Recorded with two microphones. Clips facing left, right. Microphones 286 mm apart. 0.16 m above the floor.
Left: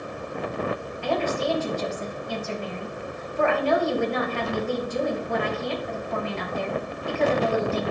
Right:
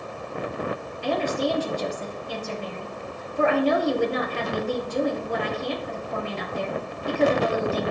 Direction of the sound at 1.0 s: 45° right (ahead or behind).